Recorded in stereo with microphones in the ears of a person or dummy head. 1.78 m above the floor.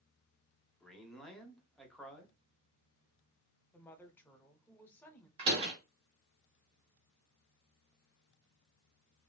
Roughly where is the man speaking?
Centre.